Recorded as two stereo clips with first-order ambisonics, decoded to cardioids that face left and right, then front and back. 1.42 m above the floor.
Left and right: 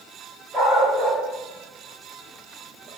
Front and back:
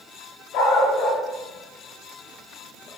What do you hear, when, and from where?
0.5 s a dog barking: 15° right, 5 m; by 2.9 s 45° right, 4 m